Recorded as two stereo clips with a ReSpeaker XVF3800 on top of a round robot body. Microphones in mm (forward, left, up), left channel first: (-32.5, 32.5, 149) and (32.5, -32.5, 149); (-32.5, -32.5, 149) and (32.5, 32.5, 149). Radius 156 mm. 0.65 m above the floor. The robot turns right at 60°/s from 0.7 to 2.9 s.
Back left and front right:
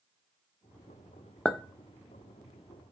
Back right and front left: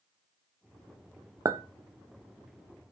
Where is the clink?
55° left, 0.6 m; by 1.6 s 65° left, 0.6 m.